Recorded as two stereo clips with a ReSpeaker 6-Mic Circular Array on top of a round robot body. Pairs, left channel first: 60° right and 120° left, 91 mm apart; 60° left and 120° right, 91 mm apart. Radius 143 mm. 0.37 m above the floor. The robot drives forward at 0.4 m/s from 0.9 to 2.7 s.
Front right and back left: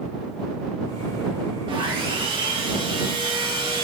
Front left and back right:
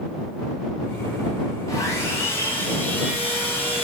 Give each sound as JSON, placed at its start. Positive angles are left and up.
{"t": 1.7, "sound": "sawing", "azimuth_deg": 110, "distance_m": 1.2}